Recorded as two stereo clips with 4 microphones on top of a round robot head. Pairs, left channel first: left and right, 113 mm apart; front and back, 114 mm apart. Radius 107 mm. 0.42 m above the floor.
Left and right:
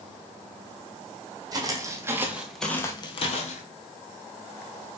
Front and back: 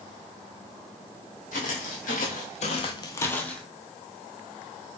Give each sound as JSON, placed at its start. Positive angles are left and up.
{"t": 1.5, "sound": "footsteps", "azimuth_deg": -35, "distance_m": 1.1}